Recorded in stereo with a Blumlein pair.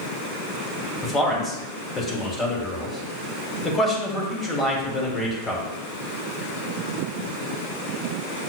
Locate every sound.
1.0 s a man speaking: 15° left, 1.1 m